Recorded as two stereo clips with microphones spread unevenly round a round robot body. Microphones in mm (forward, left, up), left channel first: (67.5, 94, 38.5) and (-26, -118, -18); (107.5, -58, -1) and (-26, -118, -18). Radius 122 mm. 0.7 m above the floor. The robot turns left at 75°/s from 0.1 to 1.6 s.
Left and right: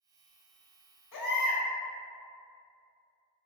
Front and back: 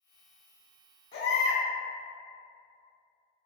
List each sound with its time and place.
1.1 s a baby crying: 35° left, 1.5 m; by 1.6 s 5° right, 1.5 m